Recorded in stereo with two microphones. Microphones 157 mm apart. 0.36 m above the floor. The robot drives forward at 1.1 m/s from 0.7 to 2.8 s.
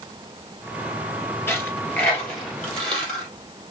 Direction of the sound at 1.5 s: 15° left (ahead or behind).